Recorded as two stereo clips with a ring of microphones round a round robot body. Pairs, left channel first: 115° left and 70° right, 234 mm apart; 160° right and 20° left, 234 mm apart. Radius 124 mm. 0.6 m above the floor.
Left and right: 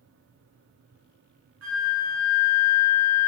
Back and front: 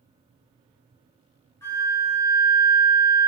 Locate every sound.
1.6 s a flute: 80° right, 1.2 m